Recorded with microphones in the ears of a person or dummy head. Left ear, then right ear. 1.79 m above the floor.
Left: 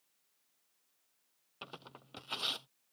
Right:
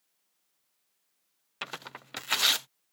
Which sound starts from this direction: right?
Tearing paper, at 1.6 s.